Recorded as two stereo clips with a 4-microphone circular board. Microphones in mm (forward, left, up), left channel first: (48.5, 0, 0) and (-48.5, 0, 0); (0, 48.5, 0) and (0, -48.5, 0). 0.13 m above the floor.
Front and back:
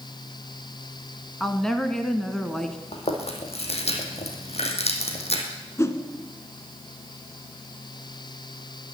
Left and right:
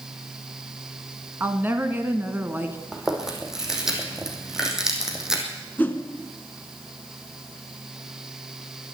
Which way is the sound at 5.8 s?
35° left.